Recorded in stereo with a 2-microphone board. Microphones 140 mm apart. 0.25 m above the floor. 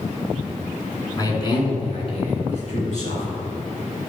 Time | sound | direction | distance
1.2 | a man speaking | 25° left (ahead or behind) | 2.5 m